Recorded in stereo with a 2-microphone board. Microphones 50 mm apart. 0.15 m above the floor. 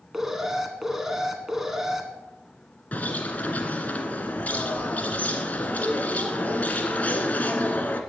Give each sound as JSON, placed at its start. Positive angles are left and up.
{"t": 0.1, "sound": "an alarm", "side_deg": -10, "distance_m": 1.8}
{"t": 2.9, "sound": "a bird", "side_deg": 30, "distance_m": 1.8}